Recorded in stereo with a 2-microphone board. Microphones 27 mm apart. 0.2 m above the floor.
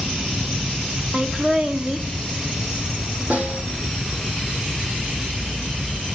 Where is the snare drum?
45° right (ahead or behind), 6 m.